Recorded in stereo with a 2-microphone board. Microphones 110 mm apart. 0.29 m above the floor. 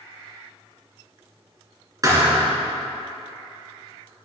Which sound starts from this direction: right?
A thud, at 2.0 s.